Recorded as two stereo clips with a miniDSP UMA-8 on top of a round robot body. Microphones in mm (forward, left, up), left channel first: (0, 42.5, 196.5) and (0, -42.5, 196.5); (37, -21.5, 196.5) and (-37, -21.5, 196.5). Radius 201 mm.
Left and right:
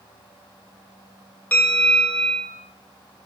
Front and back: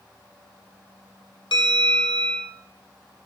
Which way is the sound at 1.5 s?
15° left.